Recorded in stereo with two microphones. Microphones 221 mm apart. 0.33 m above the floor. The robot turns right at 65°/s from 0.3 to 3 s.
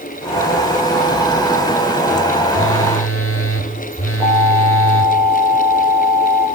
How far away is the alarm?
About 8 m.